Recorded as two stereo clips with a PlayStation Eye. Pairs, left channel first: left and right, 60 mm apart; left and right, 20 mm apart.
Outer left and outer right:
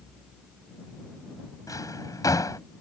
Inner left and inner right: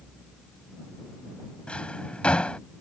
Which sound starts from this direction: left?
A drawer, at 1.7 s.